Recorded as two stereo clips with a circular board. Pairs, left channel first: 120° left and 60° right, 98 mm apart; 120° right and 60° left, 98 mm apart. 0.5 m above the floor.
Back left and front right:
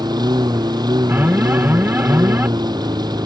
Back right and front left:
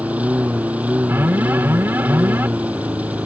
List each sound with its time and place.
0.0 s a lawn mower: 15° right
1.1 s an alarm: straight ahead